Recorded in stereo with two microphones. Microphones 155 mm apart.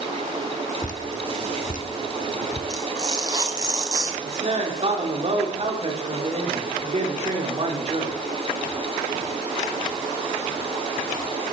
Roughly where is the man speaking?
Right.